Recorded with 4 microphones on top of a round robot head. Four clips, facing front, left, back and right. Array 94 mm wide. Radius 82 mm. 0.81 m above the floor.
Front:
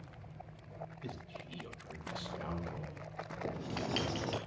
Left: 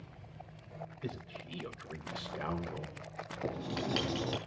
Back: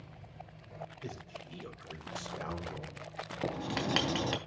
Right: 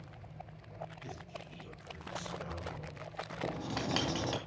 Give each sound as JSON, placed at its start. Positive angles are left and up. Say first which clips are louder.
{"t": 1.0, "sound": "a man speaking", "louder": "left 3 dB, back 1 dB", "azimuth_deg": 115, "distance_m": 3.0}
{"t": 3.4, "sound": "writing", "louder": "left 1 dB, back 5 dB", "azimuth_deg": -170, "distance_m": 3.0}